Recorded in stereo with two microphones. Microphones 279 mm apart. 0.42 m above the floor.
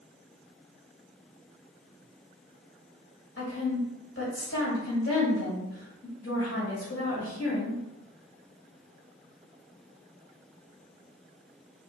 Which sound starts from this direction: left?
A woman speaking, at 3.4 s.